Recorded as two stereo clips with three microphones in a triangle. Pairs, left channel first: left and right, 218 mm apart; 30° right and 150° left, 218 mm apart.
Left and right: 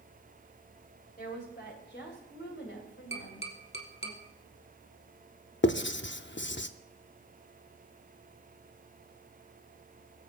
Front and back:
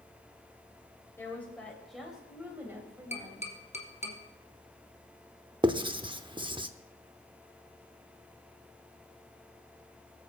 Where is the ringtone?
No ringtone in this recording.